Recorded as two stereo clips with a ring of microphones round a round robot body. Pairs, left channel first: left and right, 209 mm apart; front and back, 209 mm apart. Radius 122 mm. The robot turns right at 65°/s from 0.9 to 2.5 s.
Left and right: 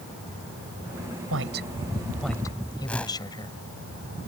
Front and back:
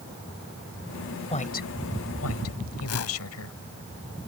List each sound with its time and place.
1.3 s a woman speaking: 60° right; by 3.6 s 15° left
2.9 s a whoosh: 5° left